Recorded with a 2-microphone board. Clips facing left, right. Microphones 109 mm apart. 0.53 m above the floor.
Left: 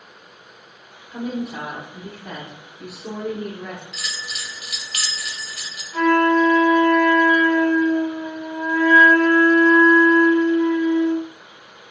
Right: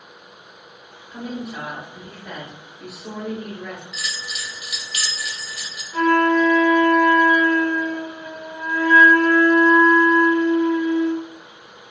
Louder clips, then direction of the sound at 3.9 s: Right 1 dB; 60° left (ahead or behind).